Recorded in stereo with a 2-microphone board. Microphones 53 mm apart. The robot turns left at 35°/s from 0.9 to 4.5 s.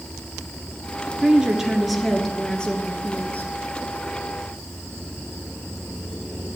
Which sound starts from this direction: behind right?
A woman speaking, at 1.2 s.